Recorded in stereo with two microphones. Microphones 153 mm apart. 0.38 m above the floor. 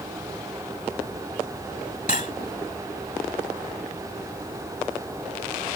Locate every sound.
2.1 s cutlery clinking: 55° left (ahead or behind)